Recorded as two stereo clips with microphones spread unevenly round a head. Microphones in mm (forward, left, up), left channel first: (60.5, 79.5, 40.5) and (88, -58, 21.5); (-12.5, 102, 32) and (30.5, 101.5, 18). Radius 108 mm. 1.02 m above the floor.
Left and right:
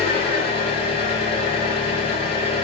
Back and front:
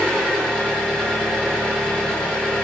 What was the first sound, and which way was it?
An engine running, 105° left.